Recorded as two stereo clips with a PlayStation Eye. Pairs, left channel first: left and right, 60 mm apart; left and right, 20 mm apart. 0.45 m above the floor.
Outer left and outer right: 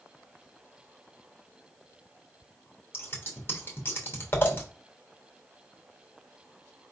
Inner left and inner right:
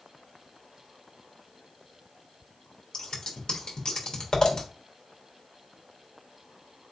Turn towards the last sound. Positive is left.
turn(degrees=40)  # may be behind; listen again after turning